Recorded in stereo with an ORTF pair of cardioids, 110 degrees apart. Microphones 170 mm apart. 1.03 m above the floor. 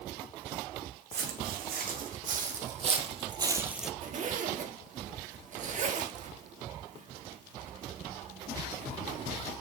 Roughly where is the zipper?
Ahead right.